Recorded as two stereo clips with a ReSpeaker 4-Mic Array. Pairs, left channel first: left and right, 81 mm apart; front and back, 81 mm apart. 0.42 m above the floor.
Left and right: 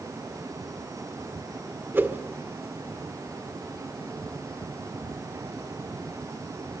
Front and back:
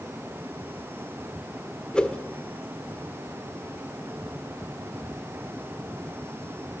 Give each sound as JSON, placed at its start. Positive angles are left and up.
{"t": 1.9, "sound": "a whoosh", "azimuth_deg": -65, "distance_m": 1.5}